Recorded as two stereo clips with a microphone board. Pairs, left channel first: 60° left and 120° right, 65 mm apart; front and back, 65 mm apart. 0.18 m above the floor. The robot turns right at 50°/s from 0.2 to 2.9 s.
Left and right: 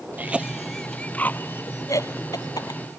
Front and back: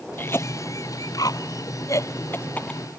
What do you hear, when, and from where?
0.2 s a cough: 55° right; by 2.8 s 75° left